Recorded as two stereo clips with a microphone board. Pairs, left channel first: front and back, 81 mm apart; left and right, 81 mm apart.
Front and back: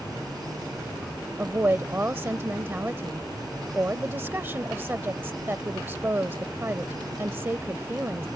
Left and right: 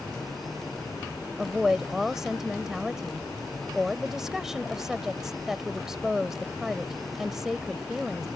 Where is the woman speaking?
170° right.